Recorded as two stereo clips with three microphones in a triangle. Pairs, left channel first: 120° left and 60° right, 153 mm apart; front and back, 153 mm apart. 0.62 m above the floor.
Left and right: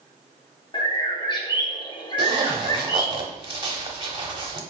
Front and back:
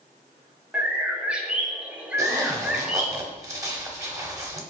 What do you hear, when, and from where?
0.7 s a bird: 105° left, 0.6 m
2.2 s a zipper: 115° right, 0.7 m